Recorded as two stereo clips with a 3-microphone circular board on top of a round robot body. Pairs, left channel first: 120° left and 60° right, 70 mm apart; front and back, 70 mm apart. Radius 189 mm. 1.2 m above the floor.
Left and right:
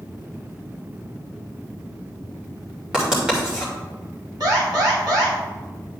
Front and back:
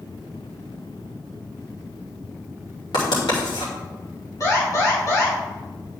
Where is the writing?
20° left, 3 m.